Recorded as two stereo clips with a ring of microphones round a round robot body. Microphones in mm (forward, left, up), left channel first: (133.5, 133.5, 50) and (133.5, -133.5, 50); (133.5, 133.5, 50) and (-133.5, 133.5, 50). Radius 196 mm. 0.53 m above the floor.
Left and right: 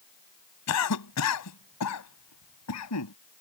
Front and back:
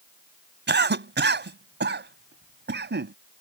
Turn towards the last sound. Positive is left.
turn(degrees=130)